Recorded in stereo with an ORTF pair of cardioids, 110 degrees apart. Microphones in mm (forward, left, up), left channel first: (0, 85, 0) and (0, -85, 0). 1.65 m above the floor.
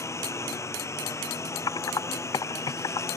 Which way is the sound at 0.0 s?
15° left.